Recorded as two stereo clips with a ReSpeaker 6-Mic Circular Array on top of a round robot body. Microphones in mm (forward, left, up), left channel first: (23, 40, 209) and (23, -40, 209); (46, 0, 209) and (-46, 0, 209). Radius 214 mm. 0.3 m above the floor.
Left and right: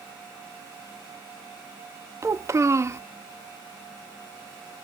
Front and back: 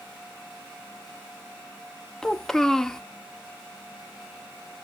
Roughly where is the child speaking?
Right.